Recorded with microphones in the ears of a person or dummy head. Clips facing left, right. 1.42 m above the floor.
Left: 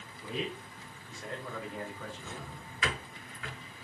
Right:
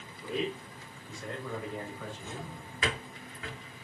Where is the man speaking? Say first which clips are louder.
Right 4 dB; 80° right, 2 m; by 2.6 s 70° right (ahead or behind), 1.2 m.